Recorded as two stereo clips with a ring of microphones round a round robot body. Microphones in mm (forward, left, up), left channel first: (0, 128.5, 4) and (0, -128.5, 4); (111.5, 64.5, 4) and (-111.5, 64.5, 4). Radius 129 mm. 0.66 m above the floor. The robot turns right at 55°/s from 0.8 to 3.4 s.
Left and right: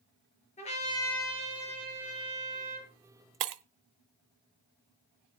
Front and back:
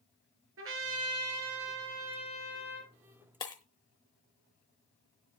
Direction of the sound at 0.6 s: 155° left.